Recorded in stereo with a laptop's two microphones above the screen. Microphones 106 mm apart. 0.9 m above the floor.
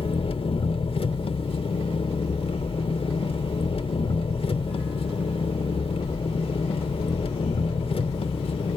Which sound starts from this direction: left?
An engine running, at 0.0 s.